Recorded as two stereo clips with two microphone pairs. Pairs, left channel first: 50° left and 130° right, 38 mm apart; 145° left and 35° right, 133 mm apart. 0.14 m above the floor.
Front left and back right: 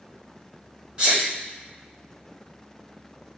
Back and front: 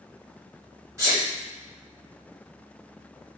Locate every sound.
1.0 s a sneeze: 85° right, 1.9 m